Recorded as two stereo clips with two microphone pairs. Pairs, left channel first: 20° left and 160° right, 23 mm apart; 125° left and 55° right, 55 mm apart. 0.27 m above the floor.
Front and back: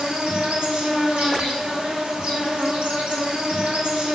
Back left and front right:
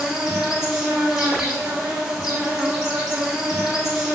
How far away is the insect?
About 0.8 m.